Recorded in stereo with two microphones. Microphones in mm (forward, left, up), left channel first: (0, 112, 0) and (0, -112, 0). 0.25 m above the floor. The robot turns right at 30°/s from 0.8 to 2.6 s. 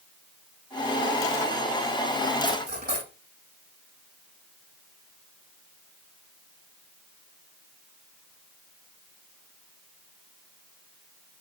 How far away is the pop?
No pop in this recording.